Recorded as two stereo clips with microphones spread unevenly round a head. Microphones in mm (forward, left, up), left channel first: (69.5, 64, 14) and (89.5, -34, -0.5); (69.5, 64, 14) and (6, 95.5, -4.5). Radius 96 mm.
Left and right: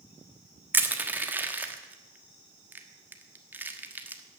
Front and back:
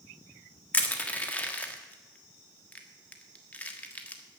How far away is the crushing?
About 1.4 m.